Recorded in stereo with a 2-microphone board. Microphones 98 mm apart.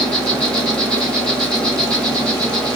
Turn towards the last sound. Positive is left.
turn(degrees=10)  # may be behind; listen again after turning